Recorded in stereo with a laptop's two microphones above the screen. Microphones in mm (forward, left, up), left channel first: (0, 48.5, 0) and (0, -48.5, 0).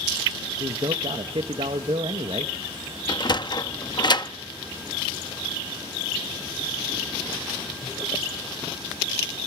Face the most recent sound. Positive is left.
turn(degrees=50)  # may be behind; listen again after turning